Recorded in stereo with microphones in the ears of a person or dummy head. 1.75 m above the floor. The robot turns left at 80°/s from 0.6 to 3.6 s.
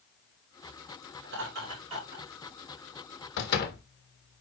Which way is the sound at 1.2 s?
90° right.